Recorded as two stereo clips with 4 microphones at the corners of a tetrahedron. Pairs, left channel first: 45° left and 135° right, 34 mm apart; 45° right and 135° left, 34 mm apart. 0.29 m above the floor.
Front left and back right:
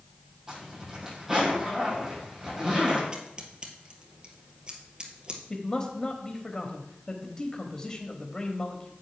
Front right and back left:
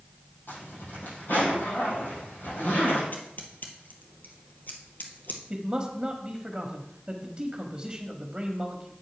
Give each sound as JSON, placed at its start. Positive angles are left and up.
{"t": 0.5, "sound": "a zipper", "azimuth_deg": -55, "distance_m": 5.5}
{"t": 3.1, "sound": "scissors", "azimuth_deg": -70, "distance_m": 1.7}
{"t": 5.5, "sound": "a man speaking", "azimuth_deg": 95, "distance_m": 1.1}